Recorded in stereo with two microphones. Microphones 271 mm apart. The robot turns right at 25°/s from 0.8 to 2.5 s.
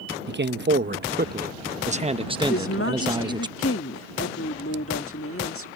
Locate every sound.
0.3 s a man speaking: 65° right; by 3.5 s 25° right
2.5 s a woman speaking: 55° left (ahead or behind)